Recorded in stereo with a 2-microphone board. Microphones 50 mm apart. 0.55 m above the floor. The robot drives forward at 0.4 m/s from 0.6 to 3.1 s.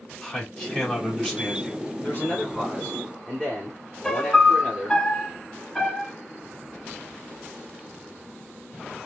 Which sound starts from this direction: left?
A man speaking, at 2.0 s.